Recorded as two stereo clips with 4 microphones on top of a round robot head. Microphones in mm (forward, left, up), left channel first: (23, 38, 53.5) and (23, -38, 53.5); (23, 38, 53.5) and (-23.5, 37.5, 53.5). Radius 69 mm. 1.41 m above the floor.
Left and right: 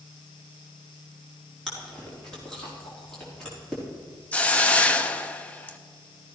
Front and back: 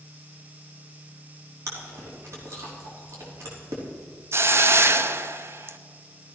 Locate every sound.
1.7 s chewing: 175° left, 3.5 m
4.3 s a hiss: 165° left, 0.8 m